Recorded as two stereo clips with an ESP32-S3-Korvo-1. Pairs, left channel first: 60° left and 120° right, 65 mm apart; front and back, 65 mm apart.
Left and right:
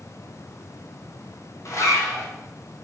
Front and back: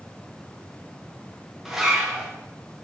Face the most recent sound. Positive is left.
turn(degrees=95)